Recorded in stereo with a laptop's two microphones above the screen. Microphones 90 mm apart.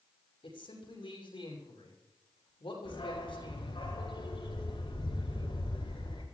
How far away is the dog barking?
About 5 m.